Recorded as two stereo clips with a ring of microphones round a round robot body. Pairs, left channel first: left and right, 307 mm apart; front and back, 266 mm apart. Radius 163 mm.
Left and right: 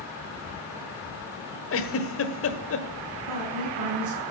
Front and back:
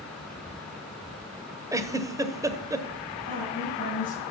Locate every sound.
1.7 s a giggle: 105° left, 1.4 m
3.3 s a woman speaking: 65° right, 6 m